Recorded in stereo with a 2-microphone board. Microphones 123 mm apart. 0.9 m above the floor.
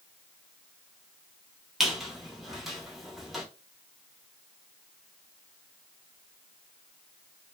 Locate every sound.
1.8 s a squeak: centre (ahead or behind), 0.8 m